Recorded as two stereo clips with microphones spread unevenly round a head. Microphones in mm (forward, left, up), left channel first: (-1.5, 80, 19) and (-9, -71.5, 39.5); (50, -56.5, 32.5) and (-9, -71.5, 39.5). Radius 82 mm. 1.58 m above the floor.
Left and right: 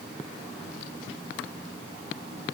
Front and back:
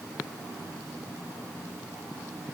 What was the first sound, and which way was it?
Only background noise.